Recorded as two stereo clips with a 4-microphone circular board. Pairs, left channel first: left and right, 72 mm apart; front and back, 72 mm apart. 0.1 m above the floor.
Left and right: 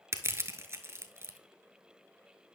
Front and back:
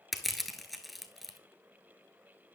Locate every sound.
0.1 s crushing: 90° right, 0.7 m